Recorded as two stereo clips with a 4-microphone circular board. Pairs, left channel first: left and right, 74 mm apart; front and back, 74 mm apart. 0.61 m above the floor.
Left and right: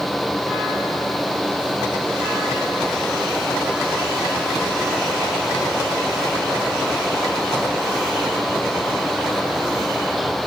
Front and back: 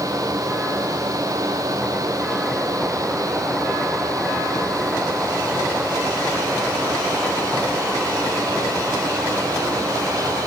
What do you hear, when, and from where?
Only background noise.